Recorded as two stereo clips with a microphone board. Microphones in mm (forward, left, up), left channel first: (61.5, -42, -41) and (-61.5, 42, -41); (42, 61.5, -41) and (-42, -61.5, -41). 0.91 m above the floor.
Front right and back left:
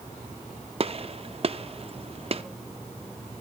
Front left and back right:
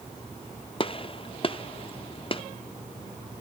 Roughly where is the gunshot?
Left.